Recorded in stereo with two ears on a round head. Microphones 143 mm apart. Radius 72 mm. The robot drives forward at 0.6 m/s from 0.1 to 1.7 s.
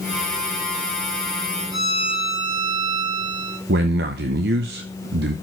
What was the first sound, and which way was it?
A violin, 30° right (ahead or behind).